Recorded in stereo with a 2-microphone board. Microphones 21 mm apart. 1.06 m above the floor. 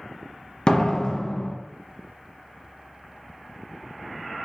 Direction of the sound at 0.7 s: 40° left (ahead or behind).